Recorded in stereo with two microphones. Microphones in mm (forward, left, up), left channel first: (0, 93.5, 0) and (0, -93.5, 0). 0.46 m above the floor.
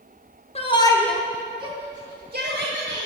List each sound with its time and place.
0.6 s a shout: 35° left (ahead or behind), 1.0 m; by 3.1 s 60° right (ahead or behind), 1.7 m